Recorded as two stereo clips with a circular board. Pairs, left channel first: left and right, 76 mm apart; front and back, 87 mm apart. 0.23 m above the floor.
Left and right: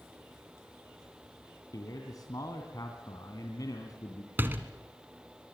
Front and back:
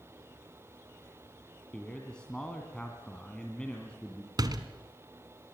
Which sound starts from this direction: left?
A man speaking, at 1.7 s.